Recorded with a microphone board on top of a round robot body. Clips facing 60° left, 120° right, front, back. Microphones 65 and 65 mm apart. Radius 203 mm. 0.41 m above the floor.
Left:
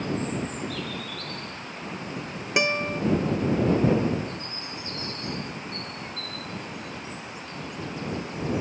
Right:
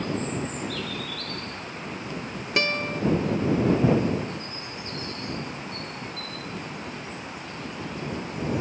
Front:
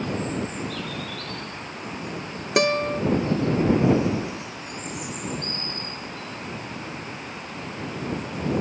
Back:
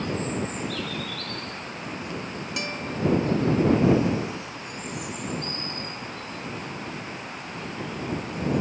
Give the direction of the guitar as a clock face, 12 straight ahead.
12 o'clock.